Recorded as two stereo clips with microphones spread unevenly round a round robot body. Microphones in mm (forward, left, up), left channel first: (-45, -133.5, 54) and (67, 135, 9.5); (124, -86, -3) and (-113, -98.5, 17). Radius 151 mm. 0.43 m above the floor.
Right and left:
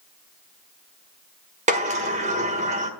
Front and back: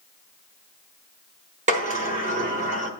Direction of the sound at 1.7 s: 120° left.